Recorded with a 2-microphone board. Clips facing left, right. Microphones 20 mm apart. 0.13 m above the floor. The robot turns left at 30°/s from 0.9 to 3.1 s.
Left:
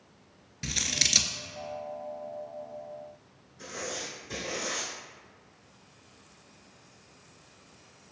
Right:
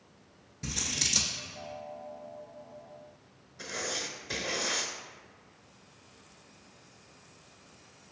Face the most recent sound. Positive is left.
turn(degrees=-50)  # may be behind; listen again after turning